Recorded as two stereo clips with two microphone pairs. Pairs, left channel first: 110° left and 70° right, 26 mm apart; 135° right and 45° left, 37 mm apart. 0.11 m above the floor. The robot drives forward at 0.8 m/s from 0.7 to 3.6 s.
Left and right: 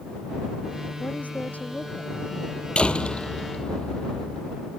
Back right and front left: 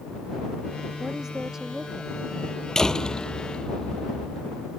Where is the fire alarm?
No fire alarm in this recording.